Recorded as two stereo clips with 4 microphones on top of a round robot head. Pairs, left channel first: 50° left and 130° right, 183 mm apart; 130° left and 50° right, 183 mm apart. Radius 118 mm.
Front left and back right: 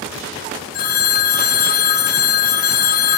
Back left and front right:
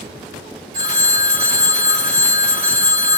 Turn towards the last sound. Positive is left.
turn(degrees=5)